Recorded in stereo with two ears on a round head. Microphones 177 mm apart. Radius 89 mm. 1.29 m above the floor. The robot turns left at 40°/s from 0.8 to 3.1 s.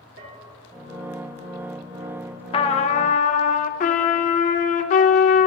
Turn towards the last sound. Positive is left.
turn(degrees=40)  # may be behind; listen again after turning